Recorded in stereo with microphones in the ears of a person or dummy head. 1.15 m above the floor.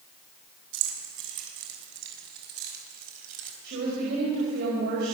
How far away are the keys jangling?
About 7 m.